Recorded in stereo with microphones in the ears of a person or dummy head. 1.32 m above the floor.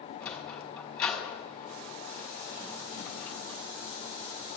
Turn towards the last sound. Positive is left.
turn(degrees=5)  # may be behind; listen again after turning